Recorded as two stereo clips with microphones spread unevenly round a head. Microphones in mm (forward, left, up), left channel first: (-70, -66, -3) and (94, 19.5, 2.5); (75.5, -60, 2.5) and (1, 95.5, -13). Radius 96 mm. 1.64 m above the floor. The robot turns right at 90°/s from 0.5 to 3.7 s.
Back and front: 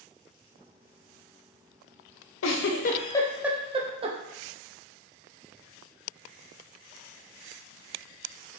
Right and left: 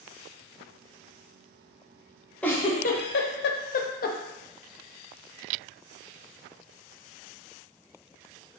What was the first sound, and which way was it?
A giggle, 145° right.